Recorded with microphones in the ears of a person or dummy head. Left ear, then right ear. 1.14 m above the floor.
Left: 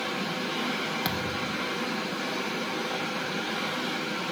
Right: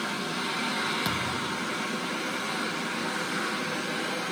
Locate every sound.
1.1 s a thud: centre (ahead or behind), 0.5 m